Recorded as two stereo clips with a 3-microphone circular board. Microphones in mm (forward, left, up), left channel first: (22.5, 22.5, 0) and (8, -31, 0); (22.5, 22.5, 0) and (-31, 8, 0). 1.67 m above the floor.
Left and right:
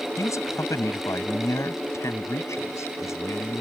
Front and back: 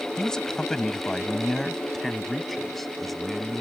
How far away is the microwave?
I don't hear a microwave.